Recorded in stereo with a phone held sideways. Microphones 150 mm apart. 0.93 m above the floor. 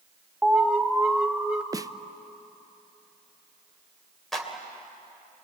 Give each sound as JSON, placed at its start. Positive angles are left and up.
{"t": 0.4, "sound": "an alarm", "side_deg": -5, "distance_m": 1.3}
{"t": 1.7, "sound": "a snare drum", "side_deg": -25, "distance_m": 0.5}
{"t": 4.3, "sound": "a clap", "side_deg": 0, "distance_m": 2.5}